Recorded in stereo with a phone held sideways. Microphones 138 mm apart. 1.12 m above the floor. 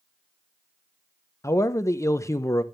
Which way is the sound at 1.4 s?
20° left (ahead or behind).